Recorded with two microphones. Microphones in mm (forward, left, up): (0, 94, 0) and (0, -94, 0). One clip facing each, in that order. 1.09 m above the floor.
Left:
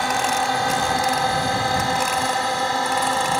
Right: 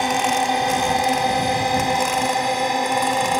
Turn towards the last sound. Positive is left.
turn(degrees=-15)  # may be behind; listen again after turning